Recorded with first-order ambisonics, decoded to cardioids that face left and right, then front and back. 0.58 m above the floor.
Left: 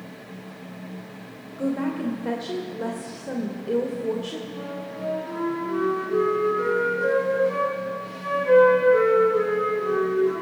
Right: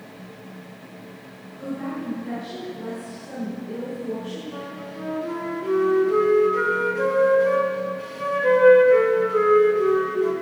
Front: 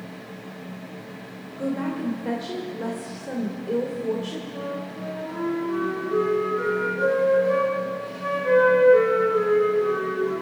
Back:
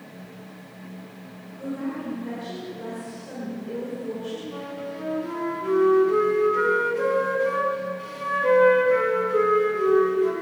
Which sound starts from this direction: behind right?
A flute, at 4.5 s.